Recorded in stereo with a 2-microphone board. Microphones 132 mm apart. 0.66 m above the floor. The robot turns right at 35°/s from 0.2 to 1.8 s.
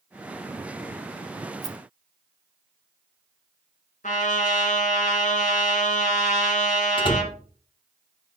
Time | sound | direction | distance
1.6 | a rattle | 30° right (ahead or behind) | 0.5 m
4.0 | a trumpet | 70° left (ahead or behind) | 2.5 m
7.0 | a door slam | 40° left (ahead or behind) | 1.1 m